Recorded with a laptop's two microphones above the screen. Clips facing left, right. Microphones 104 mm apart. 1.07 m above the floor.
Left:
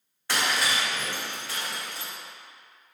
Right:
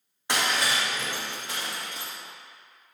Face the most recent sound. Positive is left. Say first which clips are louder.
# even
turn(degrees=-20)  # may be behind; listen again after turning